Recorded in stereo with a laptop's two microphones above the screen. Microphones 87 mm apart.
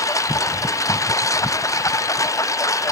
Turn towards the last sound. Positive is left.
turn(degrees=40)  # may be behind; listen again after turning